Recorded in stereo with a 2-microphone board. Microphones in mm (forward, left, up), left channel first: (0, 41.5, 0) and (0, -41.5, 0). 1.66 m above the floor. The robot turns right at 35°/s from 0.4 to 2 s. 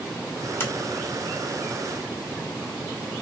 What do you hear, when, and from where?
0.6 s a sliding door: 30° left (ahead or behind), 2.5 m